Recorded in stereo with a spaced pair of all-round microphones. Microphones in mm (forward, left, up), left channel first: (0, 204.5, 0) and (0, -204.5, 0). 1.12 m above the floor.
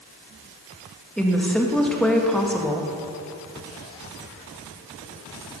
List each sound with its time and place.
1.2 s a woman speaking: centre (ahead or behind), 1.6 m